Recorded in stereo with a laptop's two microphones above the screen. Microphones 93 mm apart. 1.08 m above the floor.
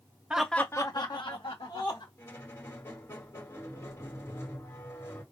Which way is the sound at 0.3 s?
10° right (ahead or behind).